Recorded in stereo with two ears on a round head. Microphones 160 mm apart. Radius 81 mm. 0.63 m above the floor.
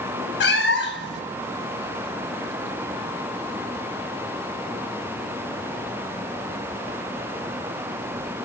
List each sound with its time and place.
0.4 s a cat meowing: 60° left (ahead or behind), 0.7 m